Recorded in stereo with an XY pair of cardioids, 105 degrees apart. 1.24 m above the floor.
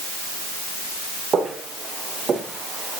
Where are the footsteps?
45° right, 5 m.